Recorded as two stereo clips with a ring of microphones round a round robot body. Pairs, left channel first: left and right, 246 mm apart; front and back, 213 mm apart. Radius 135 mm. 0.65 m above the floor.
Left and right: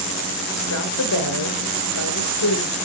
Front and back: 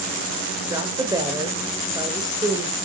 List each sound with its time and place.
0.7 s a woman speaking: 105° left, 2.5 m